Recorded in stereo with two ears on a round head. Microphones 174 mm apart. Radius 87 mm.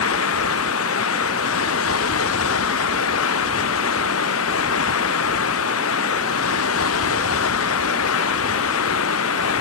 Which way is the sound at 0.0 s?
80° left.